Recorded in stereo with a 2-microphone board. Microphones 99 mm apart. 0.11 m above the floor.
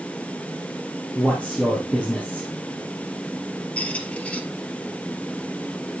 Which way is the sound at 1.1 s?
15° left (ahead or behind).